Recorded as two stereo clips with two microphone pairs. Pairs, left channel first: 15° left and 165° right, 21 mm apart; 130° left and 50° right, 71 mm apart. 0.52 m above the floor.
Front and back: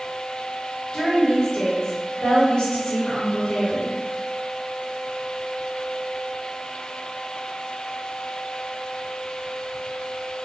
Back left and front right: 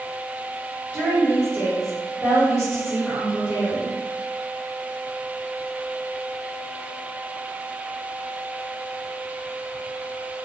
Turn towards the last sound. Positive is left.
turn(degrees=-15)